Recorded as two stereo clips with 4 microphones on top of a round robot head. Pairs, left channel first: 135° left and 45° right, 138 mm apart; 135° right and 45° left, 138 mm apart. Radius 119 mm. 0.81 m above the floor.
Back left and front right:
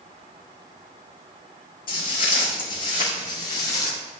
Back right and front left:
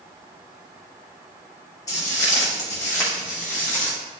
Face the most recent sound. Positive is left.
turn(degrees=150)